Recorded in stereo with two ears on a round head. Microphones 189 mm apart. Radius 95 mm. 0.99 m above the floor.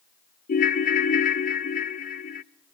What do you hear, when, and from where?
0.5 s a ringtone: 40° left (ahead or behind), 0.5 m